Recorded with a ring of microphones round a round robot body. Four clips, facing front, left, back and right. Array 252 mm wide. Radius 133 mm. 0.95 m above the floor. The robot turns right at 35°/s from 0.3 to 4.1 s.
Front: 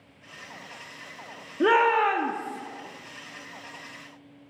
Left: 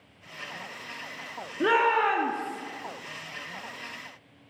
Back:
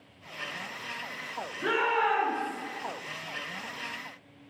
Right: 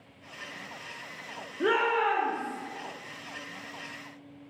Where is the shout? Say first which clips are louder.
Left 3 dB, front 7 dB; 10° left, 0.9 m; by 2.6 s 45° left, 0.9 m.